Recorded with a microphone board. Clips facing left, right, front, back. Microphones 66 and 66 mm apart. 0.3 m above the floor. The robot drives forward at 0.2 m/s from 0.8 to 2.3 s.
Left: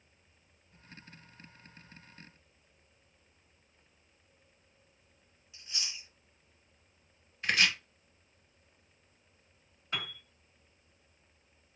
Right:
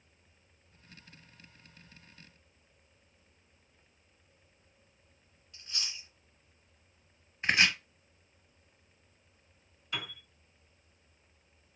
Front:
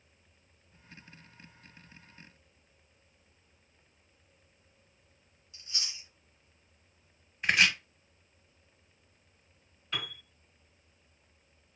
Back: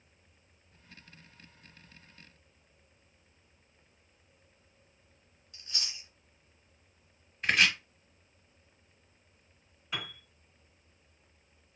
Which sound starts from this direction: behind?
Chewing, at 5.5 s.